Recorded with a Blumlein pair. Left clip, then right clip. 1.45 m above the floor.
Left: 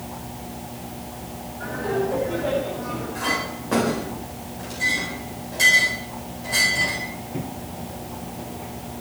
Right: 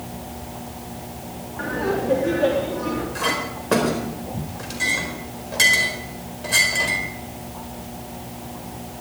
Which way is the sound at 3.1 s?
25° right.